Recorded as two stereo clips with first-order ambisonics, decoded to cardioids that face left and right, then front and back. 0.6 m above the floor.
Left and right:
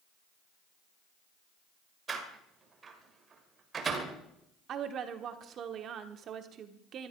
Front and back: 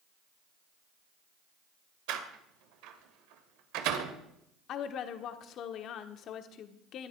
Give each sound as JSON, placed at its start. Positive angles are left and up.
{"t": 2.1, "sound": "a door slam", "azimuth_deg": -160, "distance_m": 1.9}
{"t": 4.7, "sound": "a woman speaking", "azimuth_deg": -40, "distance_m": 1.4}